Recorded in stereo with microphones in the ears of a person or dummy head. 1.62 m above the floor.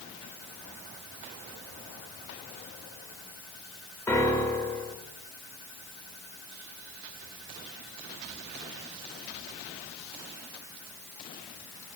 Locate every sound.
4.1 s a piano: 15° left (ahead or behind), 0.7 m